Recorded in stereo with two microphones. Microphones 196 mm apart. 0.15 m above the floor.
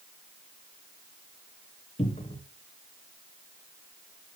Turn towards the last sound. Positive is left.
turn(degrees=30)  # may be behind; listen again after turning